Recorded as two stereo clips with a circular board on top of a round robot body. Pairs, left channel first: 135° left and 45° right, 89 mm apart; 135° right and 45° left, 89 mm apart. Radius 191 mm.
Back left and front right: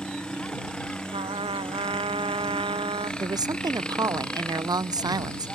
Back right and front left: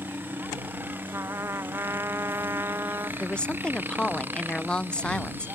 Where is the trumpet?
20° right.